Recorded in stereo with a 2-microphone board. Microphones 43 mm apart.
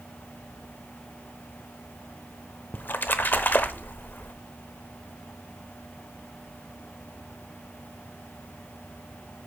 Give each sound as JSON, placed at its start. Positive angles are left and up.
{"t": 2.7, "sound": "a splash", "side_deg": 45, "distance_m": 0.7}